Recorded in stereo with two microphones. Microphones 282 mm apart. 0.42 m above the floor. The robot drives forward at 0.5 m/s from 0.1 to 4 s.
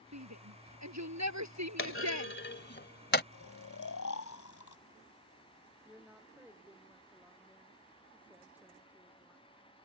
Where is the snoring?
70° left (ahead or behind); by 4.8 s 75° left (ahead or behind).